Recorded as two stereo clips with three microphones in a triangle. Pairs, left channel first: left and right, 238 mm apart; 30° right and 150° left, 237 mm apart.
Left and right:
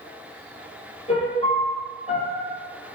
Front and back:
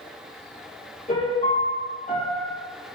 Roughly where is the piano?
Ahead left.